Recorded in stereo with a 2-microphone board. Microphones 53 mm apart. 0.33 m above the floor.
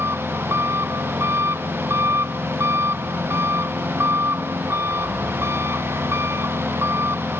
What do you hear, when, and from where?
0.0 s an engine running: 50° right (ahead or behind)